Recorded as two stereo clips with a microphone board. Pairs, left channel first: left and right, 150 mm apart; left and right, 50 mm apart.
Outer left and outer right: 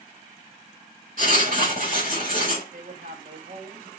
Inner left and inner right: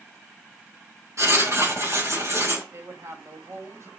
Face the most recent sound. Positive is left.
turn(degrees=-75)  # may be behind; listen again after turning